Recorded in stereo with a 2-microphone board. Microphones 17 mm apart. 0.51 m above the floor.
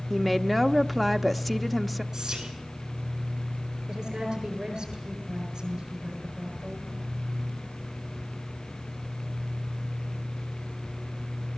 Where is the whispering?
25° right (ahead or behind), 7.5 m.